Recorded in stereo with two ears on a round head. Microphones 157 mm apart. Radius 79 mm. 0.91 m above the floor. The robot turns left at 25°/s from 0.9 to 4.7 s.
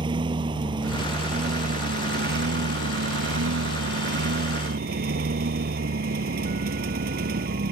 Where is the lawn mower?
30° right; by 7.7 s 125° right.